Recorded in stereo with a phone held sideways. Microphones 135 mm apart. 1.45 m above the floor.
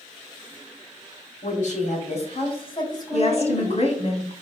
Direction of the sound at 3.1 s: 55° left (ahead or behind).